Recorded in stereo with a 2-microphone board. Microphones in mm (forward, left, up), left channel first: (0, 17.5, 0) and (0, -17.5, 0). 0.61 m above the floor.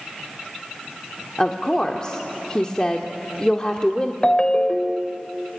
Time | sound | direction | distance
1.4 | a woman speaking | 25° left (ahead or behind) | 1.2 m
4.2 | a ringtone | 25° left (ahead or behind) | 1.1 m